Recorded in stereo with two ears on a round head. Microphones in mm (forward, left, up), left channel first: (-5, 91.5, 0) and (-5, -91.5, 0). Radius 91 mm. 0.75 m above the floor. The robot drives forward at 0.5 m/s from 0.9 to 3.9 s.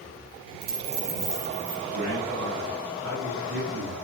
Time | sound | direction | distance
0.6 | a dropped coin | 50° right (ahead or behind) | 2.5 m
1.9 | a man speaking | 65° right (ahead or behind) | 5.5 m